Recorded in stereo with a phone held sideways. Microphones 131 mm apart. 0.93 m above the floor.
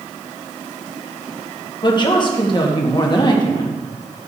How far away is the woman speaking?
About 1.0 m.